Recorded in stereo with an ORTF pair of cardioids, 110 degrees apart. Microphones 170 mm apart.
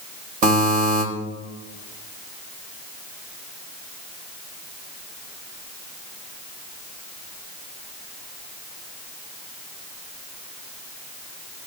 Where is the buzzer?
50° right, 2.5 m.